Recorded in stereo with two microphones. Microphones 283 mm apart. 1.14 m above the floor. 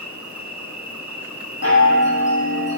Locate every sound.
0.0 s an insect: 85° right, 0.9 m
1.6 s a chime: 60° left (ahead or behind), 2.5 m